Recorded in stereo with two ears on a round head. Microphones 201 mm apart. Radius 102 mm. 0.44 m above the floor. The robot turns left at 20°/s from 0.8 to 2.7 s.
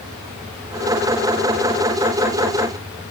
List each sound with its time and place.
Only background noise.